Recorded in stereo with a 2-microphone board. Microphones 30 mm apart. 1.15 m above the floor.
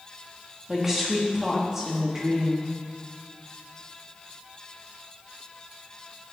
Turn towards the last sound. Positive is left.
turn(degrees=-15)  # may be behind; listen again after turning